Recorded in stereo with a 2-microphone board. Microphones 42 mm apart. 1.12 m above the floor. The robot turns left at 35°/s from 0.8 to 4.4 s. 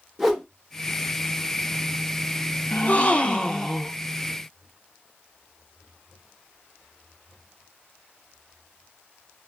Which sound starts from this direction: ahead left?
A gasp, at 2.7 s.